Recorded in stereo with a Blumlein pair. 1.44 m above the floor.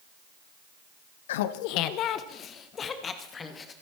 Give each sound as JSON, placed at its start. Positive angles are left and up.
{"t": 1.3, "sound": "laughter", "azimuth_deg": 55, "distance_m": 0.8}